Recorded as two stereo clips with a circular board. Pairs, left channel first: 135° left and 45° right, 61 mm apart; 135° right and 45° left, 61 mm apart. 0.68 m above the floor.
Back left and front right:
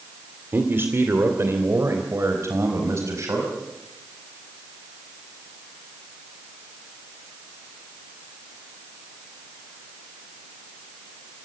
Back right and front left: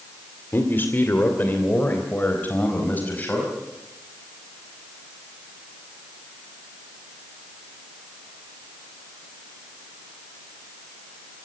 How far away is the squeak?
I don't hear a squeak.